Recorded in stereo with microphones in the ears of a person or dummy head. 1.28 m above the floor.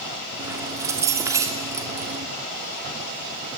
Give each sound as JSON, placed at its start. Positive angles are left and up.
{"t": 0.4, "sound": "keys jangling", "side_deg": -15, "distance_m": 2.5}